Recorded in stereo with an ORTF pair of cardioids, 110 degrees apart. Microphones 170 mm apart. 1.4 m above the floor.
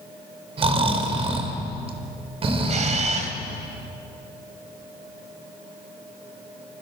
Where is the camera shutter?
45° right, 3.5 m.